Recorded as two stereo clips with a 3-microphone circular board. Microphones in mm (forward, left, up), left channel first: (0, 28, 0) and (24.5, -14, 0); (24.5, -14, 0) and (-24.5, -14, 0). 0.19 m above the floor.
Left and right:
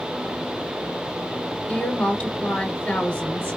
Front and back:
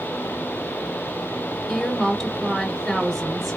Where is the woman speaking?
80° left, 1.1 m.